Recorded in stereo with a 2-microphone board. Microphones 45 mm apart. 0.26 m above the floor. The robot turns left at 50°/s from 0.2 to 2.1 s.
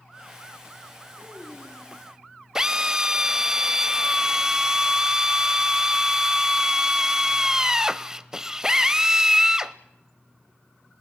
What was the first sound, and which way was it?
A child speaking, 150° right.